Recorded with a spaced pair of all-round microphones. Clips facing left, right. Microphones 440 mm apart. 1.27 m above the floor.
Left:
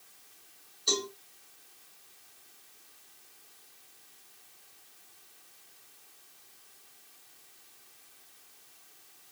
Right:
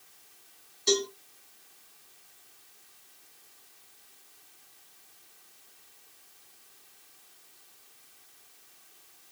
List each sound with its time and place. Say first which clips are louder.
0.9 s a cowbell: right 7 dB; 75° right (ahead or behind), 1.7 m